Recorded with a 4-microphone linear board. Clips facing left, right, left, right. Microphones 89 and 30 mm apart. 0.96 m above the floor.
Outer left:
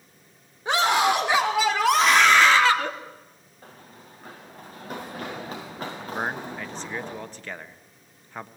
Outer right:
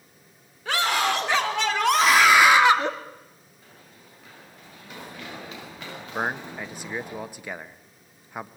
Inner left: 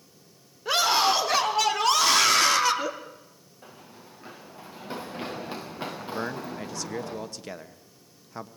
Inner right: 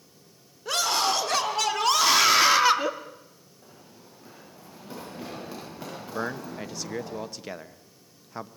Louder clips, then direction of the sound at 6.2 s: Outer right 2 dB, inner right 2 dB; 10° right (ahead or behind).